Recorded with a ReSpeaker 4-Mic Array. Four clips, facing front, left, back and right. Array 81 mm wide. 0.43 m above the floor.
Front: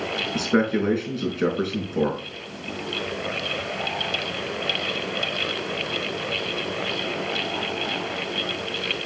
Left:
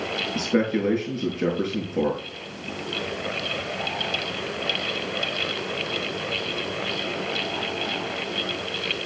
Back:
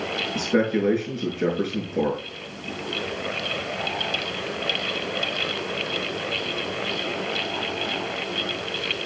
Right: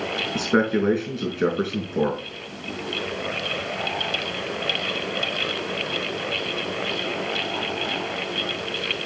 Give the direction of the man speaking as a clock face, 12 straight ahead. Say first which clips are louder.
Right 2 dB, even; 2 o'clock.